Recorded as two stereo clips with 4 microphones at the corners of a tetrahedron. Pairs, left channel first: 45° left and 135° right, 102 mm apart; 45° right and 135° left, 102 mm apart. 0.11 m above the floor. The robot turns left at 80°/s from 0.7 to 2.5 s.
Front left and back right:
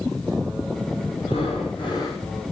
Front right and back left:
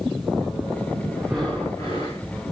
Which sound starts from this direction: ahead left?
Breathing, at 1.2 s.